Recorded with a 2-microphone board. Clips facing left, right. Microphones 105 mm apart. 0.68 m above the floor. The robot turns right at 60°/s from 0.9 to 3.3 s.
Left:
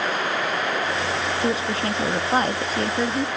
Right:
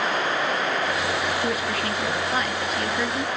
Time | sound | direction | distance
1.4 | a woman speaking | 35° left | 0.6 m